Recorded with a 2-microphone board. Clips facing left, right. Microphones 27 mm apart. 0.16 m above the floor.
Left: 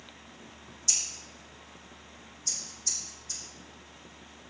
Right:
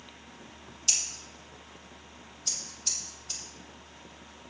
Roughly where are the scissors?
Right.